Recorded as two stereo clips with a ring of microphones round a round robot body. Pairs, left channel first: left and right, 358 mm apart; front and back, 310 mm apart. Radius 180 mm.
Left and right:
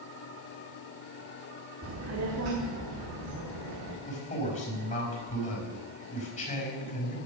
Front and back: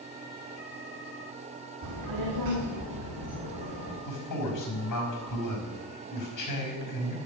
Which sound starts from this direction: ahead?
A man speaking, at 4.0 s.